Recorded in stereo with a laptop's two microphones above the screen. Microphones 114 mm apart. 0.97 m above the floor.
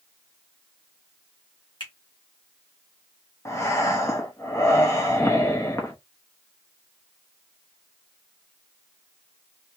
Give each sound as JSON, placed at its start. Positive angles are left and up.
{"t": 1.8, "sound": "a finger snap", "side_deg": 45, "distance_m": 1.5}
{"t": 3.5, "sound": "breathing", "side_deg": 25, "distance_m": 0.7}